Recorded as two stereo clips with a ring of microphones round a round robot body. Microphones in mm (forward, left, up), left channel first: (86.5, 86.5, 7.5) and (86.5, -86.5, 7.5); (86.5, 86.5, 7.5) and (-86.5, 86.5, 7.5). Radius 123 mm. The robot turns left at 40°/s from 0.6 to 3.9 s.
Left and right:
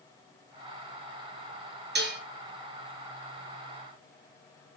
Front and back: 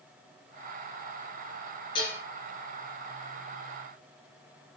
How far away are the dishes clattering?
About 4.5 m.